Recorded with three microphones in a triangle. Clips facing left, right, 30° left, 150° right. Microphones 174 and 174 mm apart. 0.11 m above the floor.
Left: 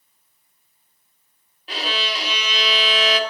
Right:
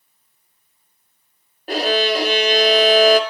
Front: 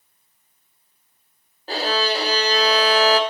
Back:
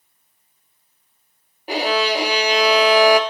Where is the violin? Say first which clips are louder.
Right 10 dB, back 3 dB; 75° right, 1.0 m.